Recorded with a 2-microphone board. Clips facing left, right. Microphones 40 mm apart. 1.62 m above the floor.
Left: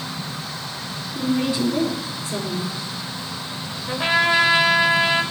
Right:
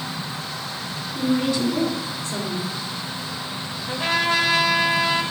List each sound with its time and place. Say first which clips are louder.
1.1 s a woman speaking: even; 25° left (ahead or behind), 3.5 m
3.9 s a trumpet: left 3 dB; 25° left (ahead or behind), 1.5 m